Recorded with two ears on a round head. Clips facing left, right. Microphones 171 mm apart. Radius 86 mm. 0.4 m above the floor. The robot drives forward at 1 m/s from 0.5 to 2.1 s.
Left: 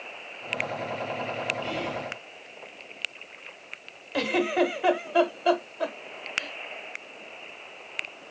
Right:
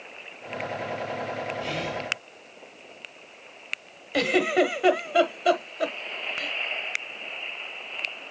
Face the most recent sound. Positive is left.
turn(degrees=-20)  # may be behind; listen again after turning